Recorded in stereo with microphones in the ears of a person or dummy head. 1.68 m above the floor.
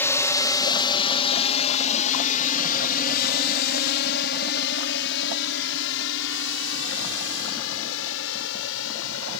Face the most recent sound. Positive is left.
turn(degrees=75)  # may be behind; listen again after turning